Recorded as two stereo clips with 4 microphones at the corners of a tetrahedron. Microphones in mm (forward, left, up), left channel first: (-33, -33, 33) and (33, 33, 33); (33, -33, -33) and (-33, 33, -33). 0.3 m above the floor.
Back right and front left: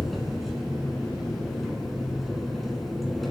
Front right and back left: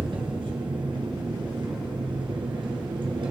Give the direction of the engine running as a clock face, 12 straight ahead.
7 o'clock.